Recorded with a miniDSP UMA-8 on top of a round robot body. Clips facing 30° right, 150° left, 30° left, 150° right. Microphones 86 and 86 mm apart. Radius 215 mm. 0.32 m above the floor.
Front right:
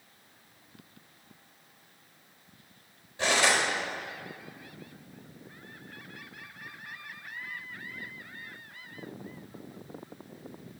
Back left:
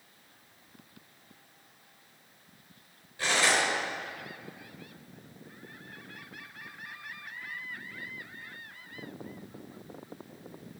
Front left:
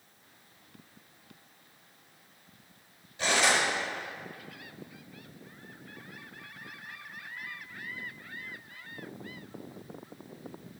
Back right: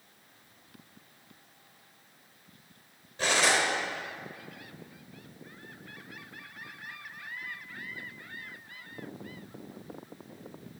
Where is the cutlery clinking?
100° right, 4 m.